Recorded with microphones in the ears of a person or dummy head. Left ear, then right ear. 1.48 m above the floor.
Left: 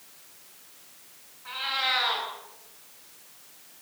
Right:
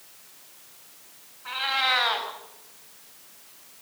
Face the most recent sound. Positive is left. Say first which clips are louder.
# right 3 dB
turn(degrees=-15)  # may be behind; listen again after turning